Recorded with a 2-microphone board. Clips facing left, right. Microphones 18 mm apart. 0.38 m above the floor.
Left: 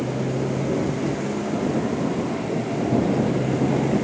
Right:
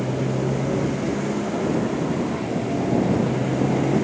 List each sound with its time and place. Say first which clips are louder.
0.0 s a motorcycle: right 1 dB; 10° right (ahead or behind)